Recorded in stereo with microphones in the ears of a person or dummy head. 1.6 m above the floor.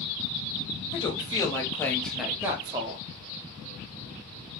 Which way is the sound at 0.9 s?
25° left (ahead or behind).